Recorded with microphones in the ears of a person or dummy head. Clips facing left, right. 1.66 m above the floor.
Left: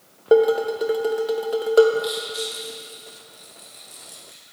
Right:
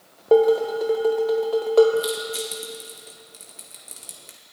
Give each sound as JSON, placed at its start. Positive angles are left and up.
{"t": 0.3, "sound": "dishes clattering", "side_deg": 10, "distance_m": 0.9}
{"t": 2.0, "sound": "crushing", "side_deg": -45, "distance_m": 1.8}